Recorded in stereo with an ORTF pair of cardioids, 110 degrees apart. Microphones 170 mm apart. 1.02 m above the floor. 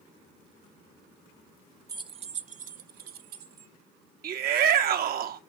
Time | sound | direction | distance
1.9 | keys jangling | 20° right | 0.5 m
4.2 | a shout | 60° right | 1.5 m